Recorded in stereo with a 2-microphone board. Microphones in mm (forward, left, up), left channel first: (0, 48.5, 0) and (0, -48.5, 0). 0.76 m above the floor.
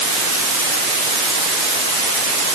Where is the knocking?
No knocking in this recording.